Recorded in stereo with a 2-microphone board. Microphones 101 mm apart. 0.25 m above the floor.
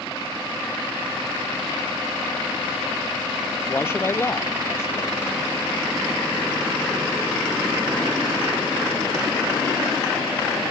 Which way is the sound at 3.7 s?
25° left (ahead or behind).